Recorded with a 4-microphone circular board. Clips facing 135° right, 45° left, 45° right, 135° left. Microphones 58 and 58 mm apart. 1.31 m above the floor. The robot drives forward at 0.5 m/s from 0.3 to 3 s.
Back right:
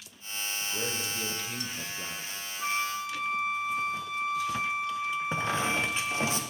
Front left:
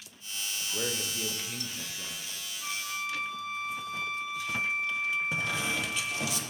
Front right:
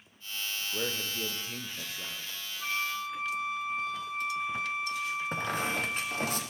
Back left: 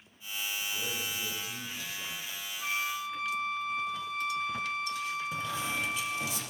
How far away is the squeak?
About 0.6 m.